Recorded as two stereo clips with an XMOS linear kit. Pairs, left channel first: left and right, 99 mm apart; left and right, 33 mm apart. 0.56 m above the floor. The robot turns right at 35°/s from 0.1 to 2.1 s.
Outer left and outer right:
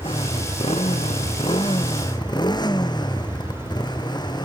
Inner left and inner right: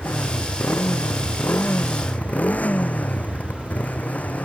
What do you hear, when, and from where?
0.0 s a motorcycle: 65° left; by 4.4 s 135° left